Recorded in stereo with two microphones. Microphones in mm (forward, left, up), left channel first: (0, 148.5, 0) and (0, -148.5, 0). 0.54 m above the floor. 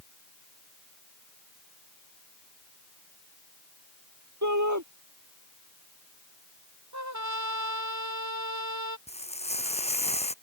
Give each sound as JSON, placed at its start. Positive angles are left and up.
{"t": 4.4, "sound": "a shout", "side_deg": -70}
{"t": 6.9, "sound": "a trumpet", "side_deg": -70}
{"t": 9.1, "sound": "frying", "side_deg": 20}